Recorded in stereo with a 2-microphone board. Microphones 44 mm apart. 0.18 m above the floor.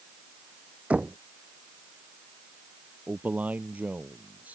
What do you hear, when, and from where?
0.9 s knocking: 35° right (ahead or behind)
3.1 s a man speaking: 35° right (ahead or behind)